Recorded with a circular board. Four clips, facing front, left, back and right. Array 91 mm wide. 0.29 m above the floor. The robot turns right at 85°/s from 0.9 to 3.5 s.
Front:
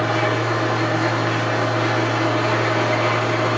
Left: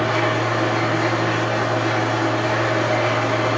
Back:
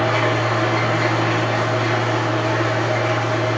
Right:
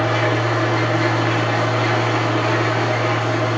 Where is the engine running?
175° left, 1.4 m; by 3.6 s 35° left, 1.4 m.